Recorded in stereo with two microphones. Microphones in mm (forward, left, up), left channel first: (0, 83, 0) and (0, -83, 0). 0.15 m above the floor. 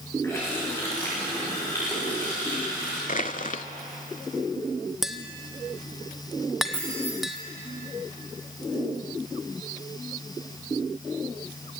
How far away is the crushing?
About 0.6 m.